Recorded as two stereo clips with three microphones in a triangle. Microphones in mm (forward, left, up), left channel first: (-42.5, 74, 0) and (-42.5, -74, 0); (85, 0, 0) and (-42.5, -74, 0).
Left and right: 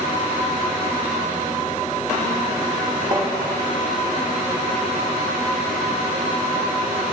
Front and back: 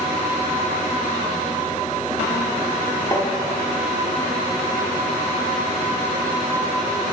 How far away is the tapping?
About 1.1 m.